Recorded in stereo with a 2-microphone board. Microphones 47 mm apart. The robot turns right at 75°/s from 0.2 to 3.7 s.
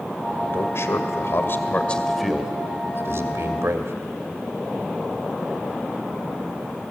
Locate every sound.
0.5 s a man speaking: 55° left, 2 m; by 3.9 s 65° right, 2 m